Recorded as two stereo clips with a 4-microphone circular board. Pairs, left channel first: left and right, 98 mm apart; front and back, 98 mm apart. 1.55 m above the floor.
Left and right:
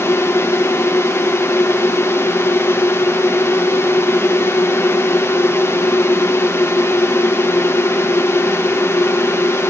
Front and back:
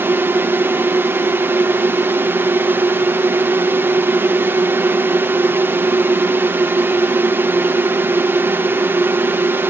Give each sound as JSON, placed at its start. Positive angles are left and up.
{"t": 0.0, "sound": "a drone", "azimuth_deg": 130}